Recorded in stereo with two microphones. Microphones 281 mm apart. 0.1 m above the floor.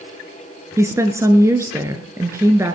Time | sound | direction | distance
0.8 | a woman speaking | 10° right (ahead or behind) | 1.3 m